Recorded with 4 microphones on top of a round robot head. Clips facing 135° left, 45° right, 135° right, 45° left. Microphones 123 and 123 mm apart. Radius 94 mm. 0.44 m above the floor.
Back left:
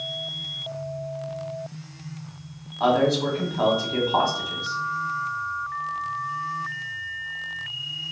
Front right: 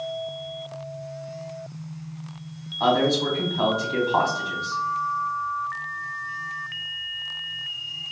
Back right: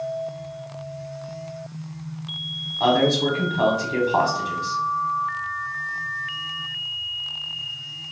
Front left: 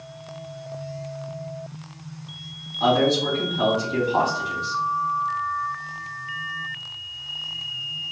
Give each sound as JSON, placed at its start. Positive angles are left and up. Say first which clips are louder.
{"t": 2.8, "sound": "a man speaking", "louder": "back left 1 dB, back right 1 dB", "azimuth_deg": -145, "distance_m": 1.3}